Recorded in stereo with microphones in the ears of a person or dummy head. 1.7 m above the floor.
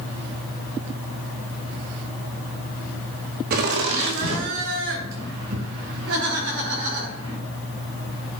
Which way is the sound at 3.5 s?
50° right (ahead or behind).